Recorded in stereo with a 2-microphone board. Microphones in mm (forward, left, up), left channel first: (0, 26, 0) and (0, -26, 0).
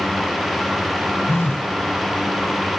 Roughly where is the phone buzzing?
Left.